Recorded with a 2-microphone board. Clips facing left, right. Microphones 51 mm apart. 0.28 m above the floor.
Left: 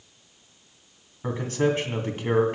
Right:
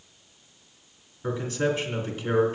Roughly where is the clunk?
I don't hear a clunk.